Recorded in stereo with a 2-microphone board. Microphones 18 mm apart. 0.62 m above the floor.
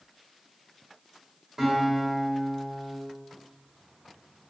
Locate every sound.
1.6 s a guitar: 25° right (ahead or behind), 1.6 m